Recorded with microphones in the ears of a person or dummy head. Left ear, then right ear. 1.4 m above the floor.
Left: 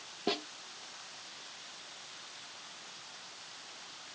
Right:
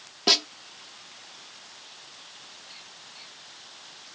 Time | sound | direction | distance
0.3 | a snare drum | 50° right (ahead or behind) | ?